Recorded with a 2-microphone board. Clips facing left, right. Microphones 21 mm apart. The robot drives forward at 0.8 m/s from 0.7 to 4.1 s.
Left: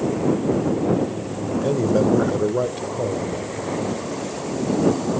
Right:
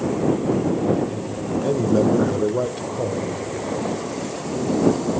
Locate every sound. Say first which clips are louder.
1.6 s a man speaking: even; 5° left (ahead or behind), 0.9 m